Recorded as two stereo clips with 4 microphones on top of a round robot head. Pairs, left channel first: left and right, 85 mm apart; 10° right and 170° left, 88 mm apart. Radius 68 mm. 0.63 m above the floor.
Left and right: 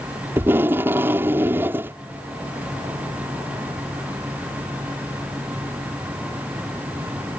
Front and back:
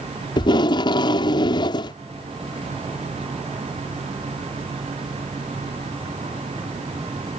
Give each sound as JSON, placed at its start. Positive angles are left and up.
{"t": 0.4, "sound": "tape being pulled", "azimuth_deg": -25}